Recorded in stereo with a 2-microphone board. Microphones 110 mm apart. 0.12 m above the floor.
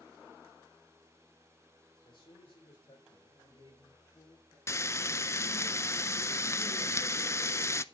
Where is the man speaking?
45° left (ahead or behind), 4.5 m; by 4.6 s 55° left (ahead or behind), 7 m.